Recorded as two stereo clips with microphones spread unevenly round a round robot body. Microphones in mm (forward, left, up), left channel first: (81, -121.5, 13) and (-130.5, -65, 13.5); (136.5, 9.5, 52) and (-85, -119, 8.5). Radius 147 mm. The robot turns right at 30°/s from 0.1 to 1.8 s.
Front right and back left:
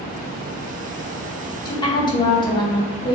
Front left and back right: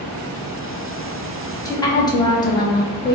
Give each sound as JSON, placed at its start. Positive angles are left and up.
{"t": 1.6, "sound": "a woman speaking", "azimuth_deg": -50, "distance_m": 0.9}